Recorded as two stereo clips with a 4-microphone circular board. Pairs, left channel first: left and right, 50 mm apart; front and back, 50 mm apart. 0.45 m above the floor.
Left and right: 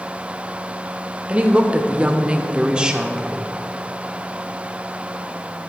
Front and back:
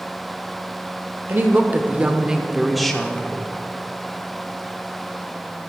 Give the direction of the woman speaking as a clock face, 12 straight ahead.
5 o'clock.